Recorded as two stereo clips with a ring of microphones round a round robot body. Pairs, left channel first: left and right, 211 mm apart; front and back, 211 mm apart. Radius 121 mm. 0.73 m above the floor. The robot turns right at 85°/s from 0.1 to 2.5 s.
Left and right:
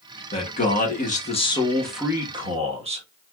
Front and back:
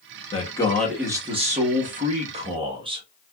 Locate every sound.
0.3 s a man speaking: 45° left, 1.2 m; by 3.0 s 130° right, 1.2 m